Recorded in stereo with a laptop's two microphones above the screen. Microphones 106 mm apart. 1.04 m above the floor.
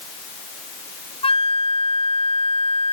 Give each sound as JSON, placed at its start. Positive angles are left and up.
{"t": 1.2, "sound": "a flute", "side_deg": 65}